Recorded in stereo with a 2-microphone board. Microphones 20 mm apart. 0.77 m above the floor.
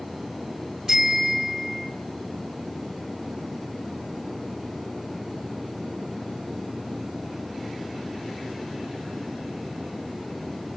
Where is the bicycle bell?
20° right (ahead or behind), 3.5 m; by 1.9 s 5° right (ahead or behind), 3 m.